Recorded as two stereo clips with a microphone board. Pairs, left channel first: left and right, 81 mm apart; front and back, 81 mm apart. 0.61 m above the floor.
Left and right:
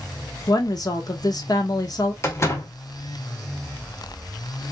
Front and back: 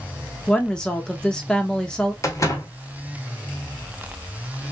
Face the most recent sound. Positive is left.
turn(degrees=40)